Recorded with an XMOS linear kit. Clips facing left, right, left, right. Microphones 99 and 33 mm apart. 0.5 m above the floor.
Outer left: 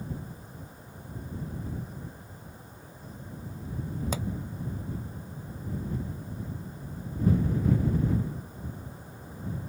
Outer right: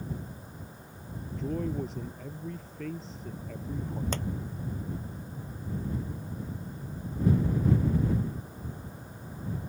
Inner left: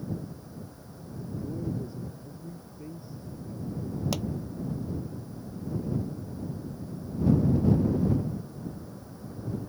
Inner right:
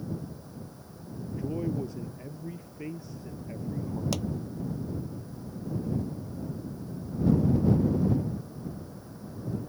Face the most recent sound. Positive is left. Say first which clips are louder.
# outer left 1 dB, inner left 1 dB
turn(degrees=5)  # may be behind; listen again after turning